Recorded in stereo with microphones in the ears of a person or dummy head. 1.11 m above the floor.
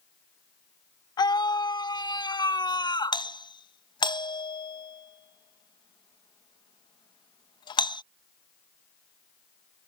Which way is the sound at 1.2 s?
25° left (ahead or behind).